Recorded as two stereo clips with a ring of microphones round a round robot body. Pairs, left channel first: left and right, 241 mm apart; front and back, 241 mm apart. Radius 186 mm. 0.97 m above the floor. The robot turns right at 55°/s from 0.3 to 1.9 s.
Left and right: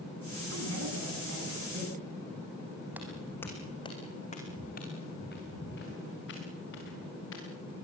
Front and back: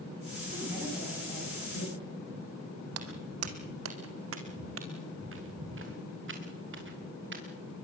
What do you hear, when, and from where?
0.5 s a woman speaking: 110° right, 9.5 m; by 2.0 s 35° right, 9.5 m
2.9 s footsteps: 175° right, 1.8 m; by 7.4 s 145° left, 5.5 m